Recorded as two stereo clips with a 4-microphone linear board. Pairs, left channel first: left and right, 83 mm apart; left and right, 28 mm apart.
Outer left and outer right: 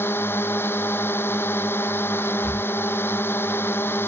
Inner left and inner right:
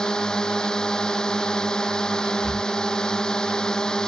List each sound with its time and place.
0.0 s a drone: 25° left (ahead or behind)
2.4 s breathing: 25° left (ahead or behind)